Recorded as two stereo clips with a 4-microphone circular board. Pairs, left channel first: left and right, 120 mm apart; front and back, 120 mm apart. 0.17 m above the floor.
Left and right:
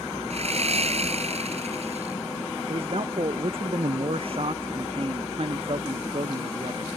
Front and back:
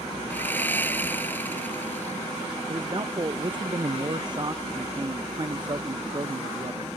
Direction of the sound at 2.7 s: 130° right.